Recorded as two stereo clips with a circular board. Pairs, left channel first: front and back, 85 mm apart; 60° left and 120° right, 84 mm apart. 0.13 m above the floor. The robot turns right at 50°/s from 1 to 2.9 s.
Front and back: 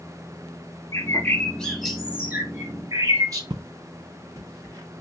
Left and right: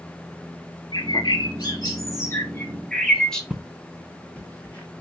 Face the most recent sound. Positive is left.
turn(degrees=130)